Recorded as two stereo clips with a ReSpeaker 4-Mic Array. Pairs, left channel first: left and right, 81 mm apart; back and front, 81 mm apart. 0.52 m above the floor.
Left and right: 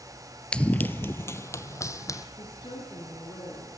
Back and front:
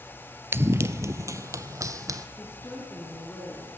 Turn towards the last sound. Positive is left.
turn(degrees=120)